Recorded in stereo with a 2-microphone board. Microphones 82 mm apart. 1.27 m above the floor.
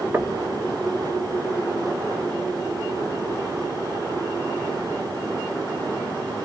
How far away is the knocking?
About 0.5 m.